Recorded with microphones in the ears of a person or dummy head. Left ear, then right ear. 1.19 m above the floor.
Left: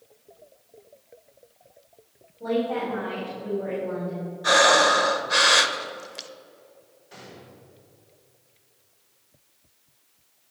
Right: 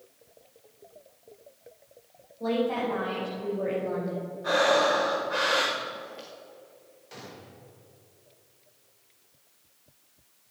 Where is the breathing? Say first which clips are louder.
Left 6 dB; 65° left (ahead or behind), 1.1 m.